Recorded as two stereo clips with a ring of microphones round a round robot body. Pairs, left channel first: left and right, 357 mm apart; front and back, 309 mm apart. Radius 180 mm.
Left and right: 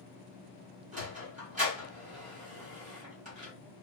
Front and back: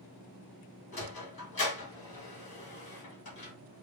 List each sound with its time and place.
0.9 s a sliding door: 30° right, 1.4 m